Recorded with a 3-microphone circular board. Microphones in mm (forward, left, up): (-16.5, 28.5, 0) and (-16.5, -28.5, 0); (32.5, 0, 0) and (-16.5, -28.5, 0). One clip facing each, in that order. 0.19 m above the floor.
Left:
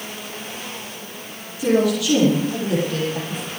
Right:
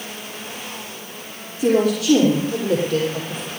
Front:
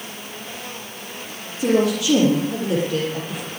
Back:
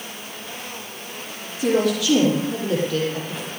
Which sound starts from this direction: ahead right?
A woman speaking, at 1.6 s.